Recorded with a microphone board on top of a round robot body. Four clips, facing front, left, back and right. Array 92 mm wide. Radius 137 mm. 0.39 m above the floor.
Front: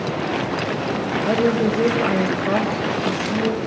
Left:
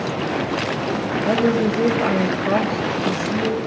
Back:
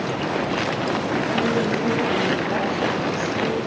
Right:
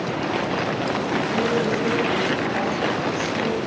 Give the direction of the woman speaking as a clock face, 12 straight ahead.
11 o'clock.